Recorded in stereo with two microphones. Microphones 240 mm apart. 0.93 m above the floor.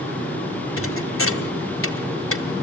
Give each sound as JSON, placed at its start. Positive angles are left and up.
{"t": 0.8, "sound": "a thud", "side_deg": 60, "distance_m": 1.7}